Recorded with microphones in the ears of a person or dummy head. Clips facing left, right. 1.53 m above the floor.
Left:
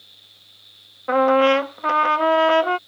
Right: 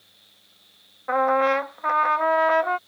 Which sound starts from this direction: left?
A trumpet, at 1.1 s.